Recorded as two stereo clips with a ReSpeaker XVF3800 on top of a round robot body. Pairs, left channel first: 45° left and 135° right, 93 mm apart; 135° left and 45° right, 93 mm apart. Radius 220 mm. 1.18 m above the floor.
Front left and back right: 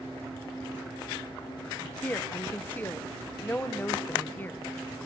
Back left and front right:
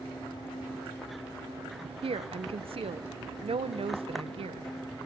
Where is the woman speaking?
25° right, 0.8 m.